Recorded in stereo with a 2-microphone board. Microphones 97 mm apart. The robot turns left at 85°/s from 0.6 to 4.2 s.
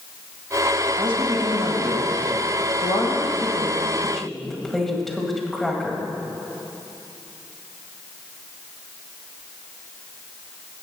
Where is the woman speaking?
80° right, 1.8 m; by 6.0 s 5° left, 1.8 m.